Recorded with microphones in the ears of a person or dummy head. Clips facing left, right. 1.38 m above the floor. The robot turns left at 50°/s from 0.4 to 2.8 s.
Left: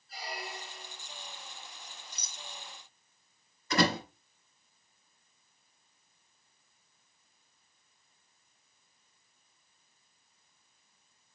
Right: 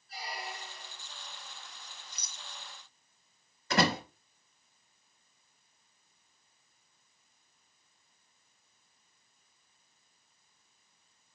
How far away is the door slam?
About 6 m.